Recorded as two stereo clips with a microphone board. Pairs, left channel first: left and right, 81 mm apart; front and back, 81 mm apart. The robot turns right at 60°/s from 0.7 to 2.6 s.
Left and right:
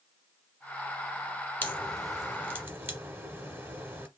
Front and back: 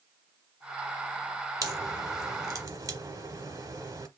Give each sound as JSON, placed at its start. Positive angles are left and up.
{"t": 1.6, "sound": "a crack", "azimuth_deg": 150, "distance_m": 0.7}